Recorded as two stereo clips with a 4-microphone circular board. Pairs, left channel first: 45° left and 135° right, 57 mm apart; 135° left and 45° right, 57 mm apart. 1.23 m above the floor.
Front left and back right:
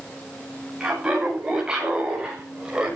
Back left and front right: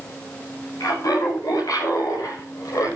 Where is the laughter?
145° left, 9 m; by 3.0 s 150° left, 6 m.